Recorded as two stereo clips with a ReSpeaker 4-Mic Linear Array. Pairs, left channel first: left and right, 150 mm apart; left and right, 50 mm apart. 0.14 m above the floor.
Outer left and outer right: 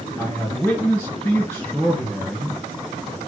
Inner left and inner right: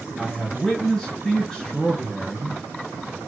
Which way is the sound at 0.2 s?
15° left (ahead or behind).